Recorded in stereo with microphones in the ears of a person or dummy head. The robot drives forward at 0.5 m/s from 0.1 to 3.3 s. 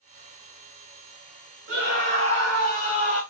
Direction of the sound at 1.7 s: 55° right (ahead or behind).